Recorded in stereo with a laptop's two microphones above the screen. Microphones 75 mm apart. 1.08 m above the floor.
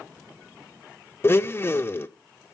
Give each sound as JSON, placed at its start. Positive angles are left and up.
{"t": 1.2, "sound": "a blender", "side_deg": 30, "distance_m": 0.6}